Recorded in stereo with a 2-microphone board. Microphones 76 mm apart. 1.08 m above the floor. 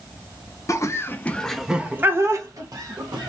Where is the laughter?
45° left (ahead or behind), 0.8 m; by 3.3 s 65° right (ahead or behind), 1.3 m.